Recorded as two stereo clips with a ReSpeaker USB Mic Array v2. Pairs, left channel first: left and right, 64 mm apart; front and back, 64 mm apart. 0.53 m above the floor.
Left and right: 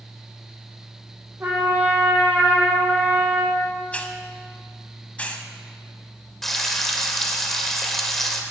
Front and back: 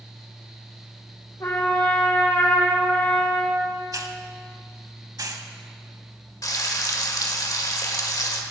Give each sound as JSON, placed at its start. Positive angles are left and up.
{"t": 1.4, "sound": "a trumpet", "azimuth_deg": -30, "distance_m": 3.5}
{"t": 3.9, "sound": "a hiss", "azimuth_deg": 160, "distance_m": 0.9}
{"t": 6.4, "sound": "frying", "azimuth_deg": 5, "distance_m": 1.3}